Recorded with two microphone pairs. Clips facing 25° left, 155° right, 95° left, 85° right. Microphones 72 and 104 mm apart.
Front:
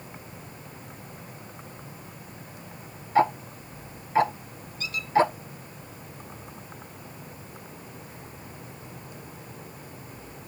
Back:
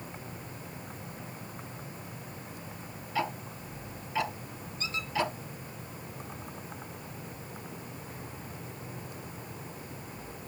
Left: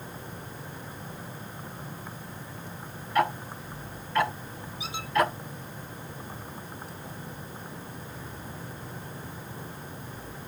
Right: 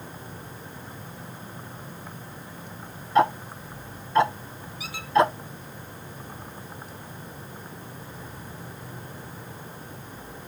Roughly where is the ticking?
Ahead.